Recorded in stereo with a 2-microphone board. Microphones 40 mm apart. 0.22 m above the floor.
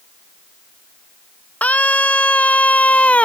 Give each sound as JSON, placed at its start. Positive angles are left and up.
{"t": 1.6, "sound": "a scream", "side_deg": 35}